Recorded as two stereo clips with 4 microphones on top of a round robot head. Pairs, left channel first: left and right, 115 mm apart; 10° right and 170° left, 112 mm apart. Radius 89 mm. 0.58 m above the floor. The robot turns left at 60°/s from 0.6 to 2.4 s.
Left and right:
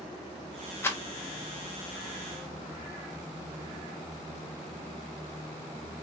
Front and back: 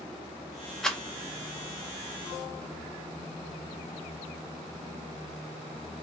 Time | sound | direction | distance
0.8 | a rattle | 70° left | 0.9 m